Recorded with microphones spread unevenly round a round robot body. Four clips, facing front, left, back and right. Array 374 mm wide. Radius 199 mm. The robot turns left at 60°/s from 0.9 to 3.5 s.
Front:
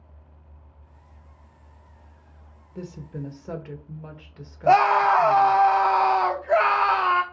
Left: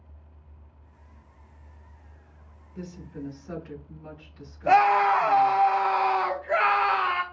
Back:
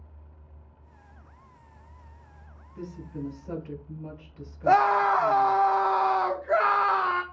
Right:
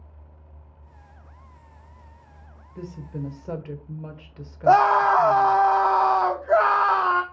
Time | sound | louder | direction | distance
2.8 | a woman speaking | right 3 dB, front 1 dB | 15° right | 1.5 m
4.7 | a scream | right 3 dB, front 3 dB | 90° right | 0.8 m